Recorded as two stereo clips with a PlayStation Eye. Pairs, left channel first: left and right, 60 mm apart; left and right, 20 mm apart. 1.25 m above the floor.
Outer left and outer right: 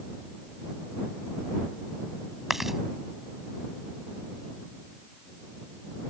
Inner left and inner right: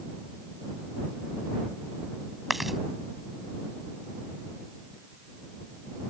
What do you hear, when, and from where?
2.5 s chewing: 5° right (ahead or behind)